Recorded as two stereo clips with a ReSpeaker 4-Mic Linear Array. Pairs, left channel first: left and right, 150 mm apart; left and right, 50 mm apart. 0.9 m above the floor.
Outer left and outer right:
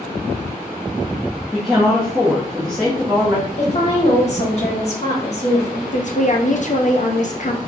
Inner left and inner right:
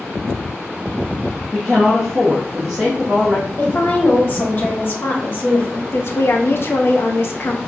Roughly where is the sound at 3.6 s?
Left.